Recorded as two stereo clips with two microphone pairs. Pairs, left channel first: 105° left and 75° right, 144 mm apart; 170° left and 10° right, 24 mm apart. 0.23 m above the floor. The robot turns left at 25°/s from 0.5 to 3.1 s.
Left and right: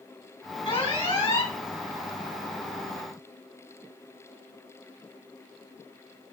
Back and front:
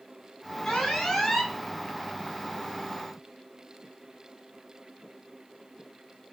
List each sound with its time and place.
0.7 s an alarm: 135° left, 3 m; by 1.5 s 110° left, 3 m